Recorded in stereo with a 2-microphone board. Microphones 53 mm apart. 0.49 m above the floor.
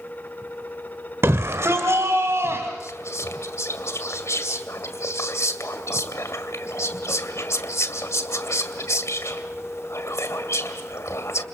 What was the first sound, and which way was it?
A shout, 60° right (ahead or behind).